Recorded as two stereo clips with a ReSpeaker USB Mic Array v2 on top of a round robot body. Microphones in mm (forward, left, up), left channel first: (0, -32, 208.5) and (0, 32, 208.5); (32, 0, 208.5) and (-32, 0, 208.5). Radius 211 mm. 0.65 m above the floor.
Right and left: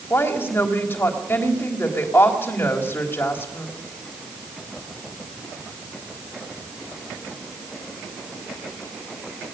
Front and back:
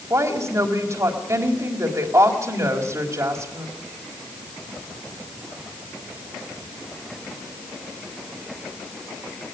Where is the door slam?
No door slam in this recording.